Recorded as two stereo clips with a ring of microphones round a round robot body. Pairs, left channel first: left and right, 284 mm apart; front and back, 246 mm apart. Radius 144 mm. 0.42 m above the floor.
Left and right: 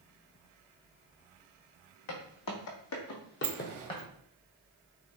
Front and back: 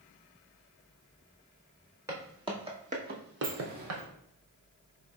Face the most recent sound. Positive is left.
turn(degrees=-120)